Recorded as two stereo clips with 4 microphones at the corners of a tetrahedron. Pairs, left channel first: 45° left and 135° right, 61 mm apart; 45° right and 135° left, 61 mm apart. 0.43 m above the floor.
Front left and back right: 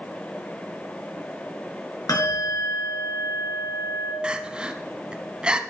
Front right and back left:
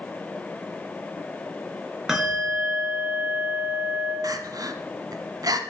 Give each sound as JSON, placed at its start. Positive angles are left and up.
{"t": 2.1, "sound": "a bell", "azimuth_deg": 55, "distance_m": 4.5}
{"t": 4.2, "sound": "crying", "azimuth_deg": 150, "distance_m": 0.9}